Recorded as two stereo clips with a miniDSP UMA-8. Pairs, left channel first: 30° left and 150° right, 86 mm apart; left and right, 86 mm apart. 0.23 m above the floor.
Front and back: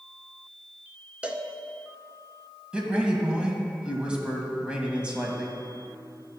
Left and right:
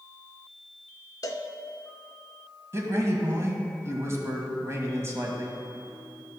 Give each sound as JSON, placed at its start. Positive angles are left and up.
{"t": 1.2, "sound": "a cowbell", "azimuth_deg": 135, "distance_m": 0.6}
{"t": 2.7, "sound": "a man speaking", "azimuth_deg": -80, "distance_m": 1.3}